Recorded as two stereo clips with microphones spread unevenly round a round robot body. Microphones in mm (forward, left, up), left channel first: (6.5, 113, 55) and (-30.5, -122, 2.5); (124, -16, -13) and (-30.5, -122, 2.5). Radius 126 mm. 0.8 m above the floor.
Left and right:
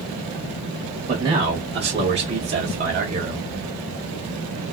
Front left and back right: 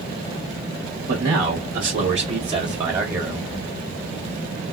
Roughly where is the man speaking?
Behind right.